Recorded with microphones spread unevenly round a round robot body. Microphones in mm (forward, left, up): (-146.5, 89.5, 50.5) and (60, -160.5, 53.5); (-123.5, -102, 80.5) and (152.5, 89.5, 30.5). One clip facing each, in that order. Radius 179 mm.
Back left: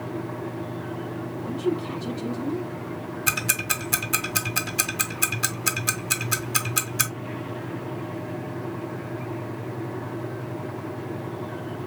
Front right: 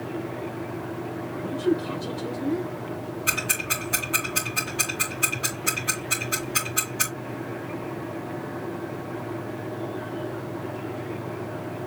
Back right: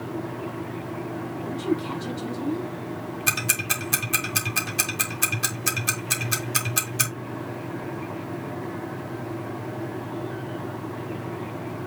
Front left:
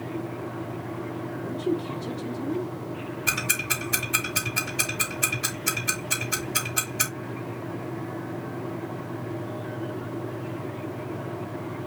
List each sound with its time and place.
1.4 s a woman speaking: 170° right, 6 m
3.3 s ticking: 155° left, 2.5 m